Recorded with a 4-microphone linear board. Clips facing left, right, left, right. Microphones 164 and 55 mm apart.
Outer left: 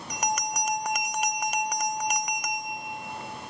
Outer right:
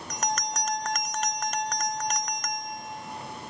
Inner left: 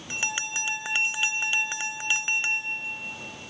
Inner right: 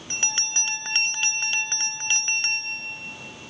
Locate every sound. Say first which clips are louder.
0.1 s a bell: outer left 1 dB, inner left 1 dB; 10° left (ahead or behind)